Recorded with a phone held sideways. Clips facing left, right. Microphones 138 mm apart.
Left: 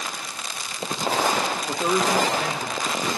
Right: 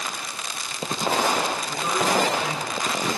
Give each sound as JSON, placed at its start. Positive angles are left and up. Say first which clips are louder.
{"t": 1.7, "sound": "a man speaking", "louder": "left 4 dB", "side_deg": 65, "distance_m": 1.7}